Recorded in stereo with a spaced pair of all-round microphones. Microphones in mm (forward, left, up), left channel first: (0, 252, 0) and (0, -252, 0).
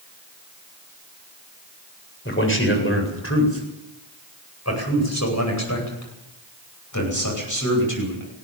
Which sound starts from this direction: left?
A man speaking, at 2.2 s.